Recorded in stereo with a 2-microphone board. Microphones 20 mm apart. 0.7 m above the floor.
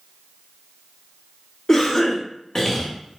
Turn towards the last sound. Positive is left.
turn(degrees=25)  # may be behind; listen again after turning